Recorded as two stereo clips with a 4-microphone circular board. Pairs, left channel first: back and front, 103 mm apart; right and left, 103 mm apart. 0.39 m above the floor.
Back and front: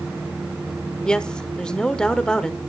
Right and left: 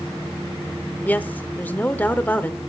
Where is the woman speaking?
115° right, 0.9 m.